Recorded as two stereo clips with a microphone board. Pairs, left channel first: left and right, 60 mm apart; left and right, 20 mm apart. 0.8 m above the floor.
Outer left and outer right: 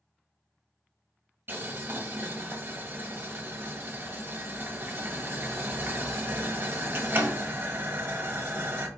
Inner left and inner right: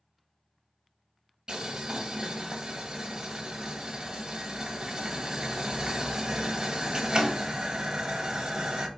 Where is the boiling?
35° right (ahead or behind), 1.0 m.